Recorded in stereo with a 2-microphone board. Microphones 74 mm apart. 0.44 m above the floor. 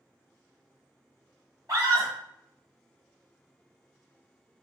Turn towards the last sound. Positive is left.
turn(degrees=-45)  # may be behind; listen again after turning